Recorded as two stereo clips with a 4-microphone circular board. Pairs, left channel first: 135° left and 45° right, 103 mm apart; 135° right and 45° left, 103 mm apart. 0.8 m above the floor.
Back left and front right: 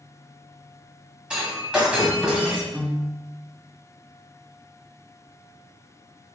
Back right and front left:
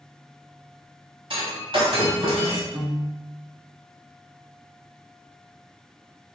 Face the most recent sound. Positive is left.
turn(degrees=15)